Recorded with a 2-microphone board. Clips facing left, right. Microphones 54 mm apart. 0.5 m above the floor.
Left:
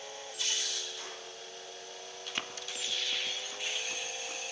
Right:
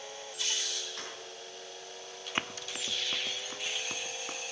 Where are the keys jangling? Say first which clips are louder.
Right 2 dB; 60° right (ahead or behind), 4.5 m.